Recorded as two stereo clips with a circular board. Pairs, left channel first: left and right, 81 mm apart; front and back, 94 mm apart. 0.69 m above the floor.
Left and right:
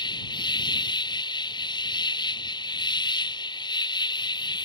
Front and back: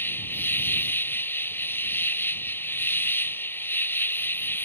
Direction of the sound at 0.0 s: 65° left.